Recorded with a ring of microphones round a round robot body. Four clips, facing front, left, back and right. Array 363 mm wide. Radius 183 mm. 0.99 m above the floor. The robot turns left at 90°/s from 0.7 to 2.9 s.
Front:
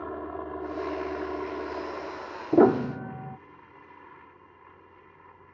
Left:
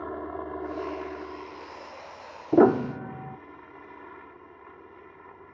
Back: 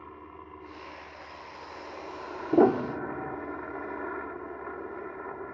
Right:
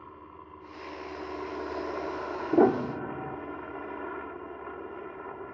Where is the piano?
65° left; by 3.4 s 30° left.